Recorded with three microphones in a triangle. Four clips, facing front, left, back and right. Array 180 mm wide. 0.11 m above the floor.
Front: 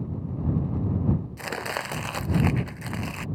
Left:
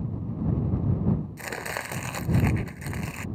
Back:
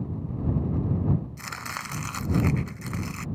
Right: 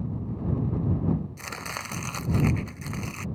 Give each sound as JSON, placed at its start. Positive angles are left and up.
{"t": 1.4, "sound": "chopping", "azimuth_deg": 25}